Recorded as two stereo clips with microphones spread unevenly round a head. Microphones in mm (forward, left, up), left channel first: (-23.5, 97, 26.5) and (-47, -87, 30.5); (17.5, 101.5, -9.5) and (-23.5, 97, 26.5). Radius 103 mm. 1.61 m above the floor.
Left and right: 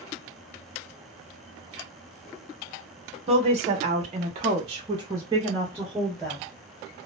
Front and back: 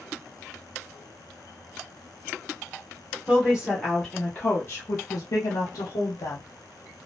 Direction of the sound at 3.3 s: 150° right.